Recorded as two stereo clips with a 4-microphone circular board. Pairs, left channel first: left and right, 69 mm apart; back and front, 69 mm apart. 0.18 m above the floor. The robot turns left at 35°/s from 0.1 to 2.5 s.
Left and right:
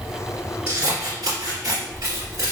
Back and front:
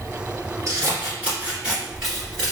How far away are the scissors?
About 1.9 m.